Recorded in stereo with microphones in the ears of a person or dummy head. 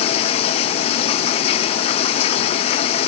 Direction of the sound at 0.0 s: 35° left (ahead or behind).